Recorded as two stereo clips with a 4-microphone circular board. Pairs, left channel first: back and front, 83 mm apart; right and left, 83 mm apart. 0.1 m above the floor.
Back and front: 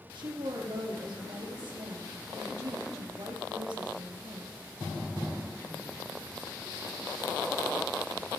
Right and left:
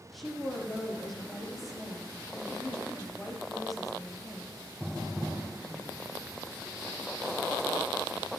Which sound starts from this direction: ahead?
A woman speaking, at 0.1 s.